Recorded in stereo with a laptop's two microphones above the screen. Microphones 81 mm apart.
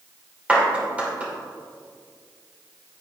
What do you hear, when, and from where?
0.5 s a clap: 15° right (ahead or behind), 2.5 m